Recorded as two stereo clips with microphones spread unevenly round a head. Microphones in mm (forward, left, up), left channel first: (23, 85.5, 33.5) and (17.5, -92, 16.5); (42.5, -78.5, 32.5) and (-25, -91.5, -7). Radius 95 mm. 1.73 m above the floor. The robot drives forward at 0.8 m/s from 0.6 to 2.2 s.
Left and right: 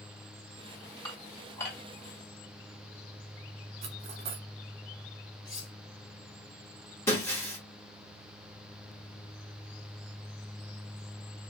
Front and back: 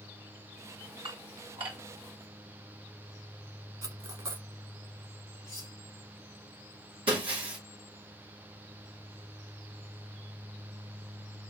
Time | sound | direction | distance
1.1 | dishes clattering | 155° left | 1.6 m
3.8 | cutlery clinking | 130° right | 1.0 m
5.5 | cutlery clinking | 20° left | 2 m
7.1 | breaking glass | 155° left | 1.3 m